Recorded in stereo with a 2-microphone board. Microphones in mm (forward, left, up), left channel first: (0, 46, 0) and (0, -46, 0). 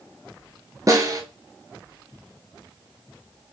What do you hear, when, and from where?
0.9 s a snare drum: 40° right (ahead or behind), 0.9 m